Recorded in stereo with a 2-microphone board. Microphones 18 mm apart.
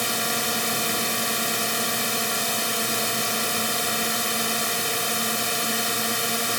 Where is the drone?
Centre (ahead or behind).